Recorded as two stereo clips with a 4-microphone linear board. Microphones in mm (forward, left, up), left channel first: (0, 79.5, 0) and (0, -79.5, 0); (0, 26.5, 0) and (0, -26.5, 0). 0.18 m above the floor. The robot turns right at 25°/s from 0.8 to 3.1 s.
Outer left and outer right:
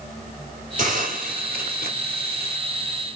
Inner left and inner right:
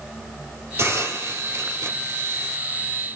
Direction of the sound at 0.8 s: 120° right.